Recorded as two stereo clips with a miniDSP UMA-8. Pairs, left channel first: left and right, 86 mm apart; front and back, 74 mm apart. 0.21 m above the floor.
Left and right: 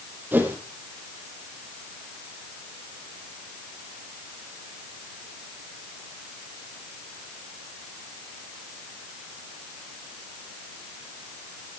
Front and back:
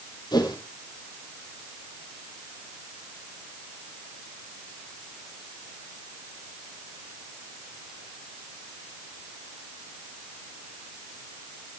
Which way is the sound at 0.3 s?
25° right.